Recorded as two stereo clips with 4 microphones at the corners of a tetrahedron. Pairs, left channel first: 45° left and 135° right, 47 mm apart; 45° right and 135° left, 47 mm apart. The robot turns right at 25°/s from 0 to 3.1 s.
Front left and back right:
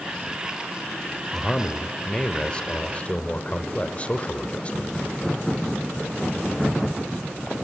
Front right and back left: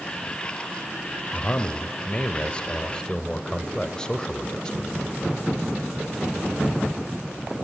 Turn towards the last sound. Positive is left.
turn(degrees=10)